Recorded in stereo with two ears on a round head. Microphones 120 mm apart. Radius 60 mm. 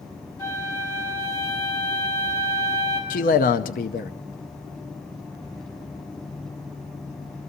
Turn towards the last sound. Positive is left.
turn(degrees=65)  # may be behind; listen again after turning